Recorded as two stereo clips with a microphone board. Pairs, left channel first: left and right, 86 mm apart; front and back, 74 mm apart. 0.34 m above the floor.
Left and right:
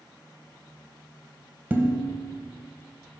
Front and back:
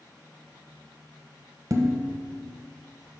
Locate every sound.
1.7 s dishes clattering: 150° right, 1.2 m